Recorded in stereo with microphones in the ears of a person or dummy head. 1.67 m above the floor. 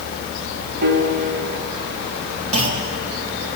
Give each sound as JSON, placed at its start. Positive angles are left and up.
{"t": 0.8, "sound": "a piano", "side_deg": -50, "distance_m": 1.7}
{"t": 2.5, "sound": "a clunk", "side_deg": -30, "distance_m": 2.5}